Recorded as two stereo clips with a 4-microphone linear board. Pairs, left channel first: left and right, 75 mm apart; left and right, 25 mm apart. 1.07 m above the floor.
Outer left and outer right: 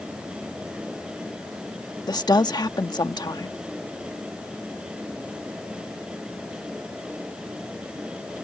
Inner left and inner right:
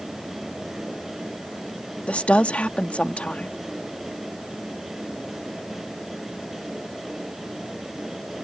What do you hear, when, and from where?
2.1 s a woman speaking: 65° left (ahead or behind)